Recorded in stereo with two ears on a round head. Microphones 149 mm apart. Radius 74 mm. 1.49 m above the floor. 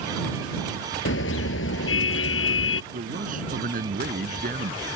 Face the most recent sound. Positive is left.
turn(degrees=-55)  # may be behind; listen again after turning